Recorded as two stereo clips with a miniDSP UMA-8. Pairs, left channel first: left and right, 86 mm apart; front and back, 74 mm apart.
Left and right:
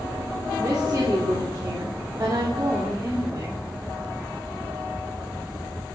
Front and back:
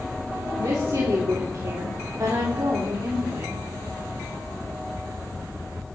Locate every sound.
0.6 s a woman speaking: 135° right, 3 m